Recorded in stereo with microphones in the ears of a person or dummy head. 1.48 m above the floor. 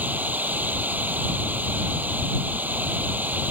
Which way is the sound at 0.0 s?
10° right (ahead or behind).